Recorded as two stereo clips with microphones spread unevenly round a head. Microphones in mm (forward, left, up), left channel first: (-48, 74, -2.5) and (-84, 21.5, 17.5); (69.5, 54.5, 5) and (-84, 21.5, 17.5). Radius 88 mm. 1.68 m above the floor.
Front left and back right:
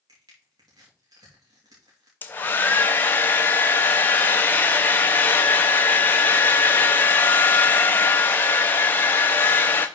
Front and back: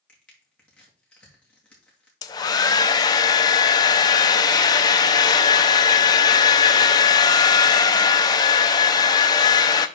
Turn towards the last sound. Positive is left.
turn(degrees=-5)